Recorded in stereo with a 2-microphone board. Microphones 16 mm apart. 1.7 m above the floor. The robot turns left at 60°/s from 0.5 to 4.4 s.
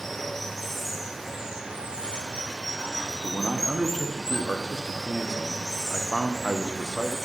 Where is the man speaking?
115° left, 0.7 m; by 7.2 s 45° left, 0.7 m.